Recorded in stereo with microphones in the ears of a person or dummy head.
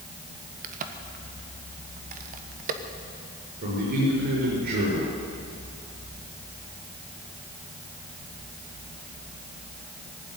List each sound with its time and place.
0.6 s a crack: 45° right (ahead or behind), 1.2 m
3.6 s a man speaking: 60° right (ahead or behind), 6.5 m